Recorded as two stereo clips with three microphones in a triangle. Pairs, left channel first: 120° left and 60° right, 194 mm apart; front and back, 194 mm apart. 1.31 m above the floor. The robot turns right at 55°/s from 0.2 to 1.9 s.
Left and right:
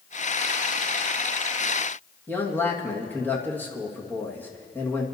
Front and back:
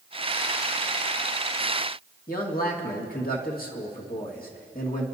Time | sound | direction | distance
2.3 | a man speaking | 40° left | 1.9 m